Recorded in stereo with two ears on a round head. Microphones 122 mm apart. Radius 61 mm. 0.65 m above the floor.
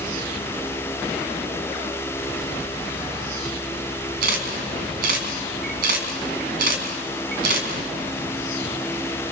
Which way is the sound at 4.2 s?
75° right (ahead or behind).